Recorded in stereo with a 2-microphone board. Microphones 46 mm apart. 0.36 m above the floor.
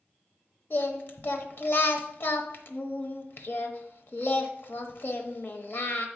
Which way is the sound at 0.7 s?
50° left (ahead or behind).